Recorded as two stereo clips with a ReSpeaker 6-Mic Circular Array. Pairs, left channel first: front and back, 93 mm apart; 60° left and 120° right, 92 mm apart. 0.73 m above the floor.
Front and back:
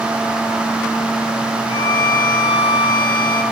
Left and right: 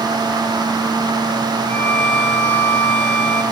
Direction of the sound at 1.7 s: 10° right.